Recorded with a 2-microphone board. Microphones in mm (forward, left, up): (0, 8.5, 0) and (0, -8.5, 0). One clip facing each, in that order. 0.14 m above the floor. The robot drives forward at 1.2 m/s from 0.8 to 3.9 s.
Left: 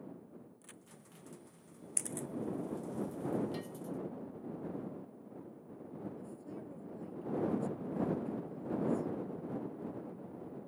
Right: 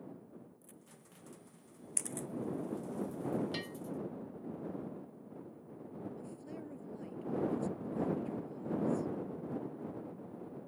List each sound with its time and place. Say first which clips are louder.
0.6 s a crack: left 2 dB; 60° left (ahead or behind)
2.0 s a camera shutter: even; 5° right (ahead or behind)
3.5 s a bell: right 2 dB; 55° right (ahead or behind)
6.2 s a woman speaking: even; 30° right (ahead or behind)